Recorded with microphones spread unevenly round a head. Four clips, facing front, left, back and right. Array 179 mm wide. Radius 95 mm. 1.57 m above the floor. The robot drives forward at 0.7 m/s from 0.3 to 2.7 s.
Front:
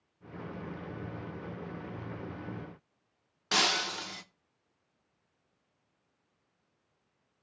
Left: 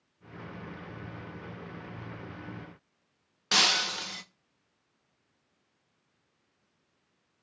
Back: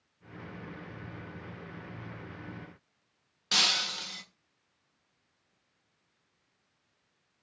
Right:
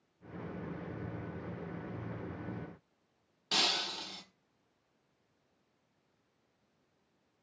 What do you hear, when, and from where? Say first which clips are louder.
3.5 s breaking glass: left 7 dB, front 4 dB; 80° left, 0.7 m